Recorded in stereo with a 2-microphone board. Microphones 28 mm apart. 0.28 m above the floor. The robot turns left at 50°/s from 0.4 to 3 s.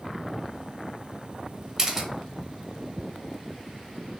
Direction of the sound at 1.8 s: 20° right (ahead or behind).